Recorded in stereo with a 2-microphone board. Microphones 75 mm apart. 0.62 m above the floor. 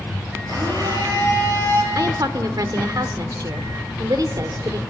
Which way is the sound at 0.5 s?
65° right (ahead or behind).